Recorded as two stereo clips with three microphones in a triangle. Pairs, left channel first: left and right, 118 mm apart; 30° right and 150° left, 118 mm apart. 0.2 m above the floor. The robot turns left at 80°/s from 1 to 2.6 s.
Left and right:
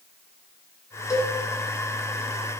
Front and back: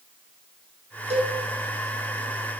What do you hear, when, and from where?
1.1 s a cowbell: 150° left, 1.9 m; by 1.4 s 130° left, 1.9 m